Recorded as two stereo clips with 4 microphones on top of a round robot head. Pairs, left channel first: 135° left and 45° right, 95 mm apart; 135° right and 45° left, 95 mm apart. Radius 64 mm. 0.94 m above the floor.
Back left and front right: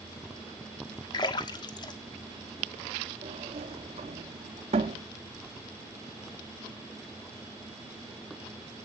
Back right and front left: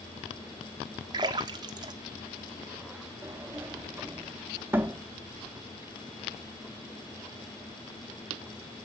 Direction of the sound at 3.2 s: 25° right.